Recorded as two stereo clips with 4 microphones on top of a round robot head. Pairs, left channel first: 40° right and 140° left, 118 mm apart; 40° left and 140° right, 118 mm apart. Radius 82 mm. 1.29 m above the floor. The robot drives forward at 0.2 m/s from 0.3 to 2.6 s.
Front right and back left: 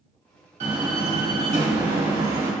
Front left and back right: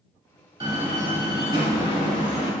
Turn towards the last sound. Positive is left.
turn(degrees=170)